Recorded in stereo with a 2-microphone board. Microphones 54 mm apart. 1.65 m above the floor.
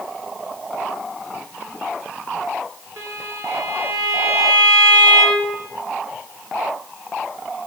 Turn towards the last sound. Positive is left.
turn(degrees=-60)  # may be behind; listen again after turning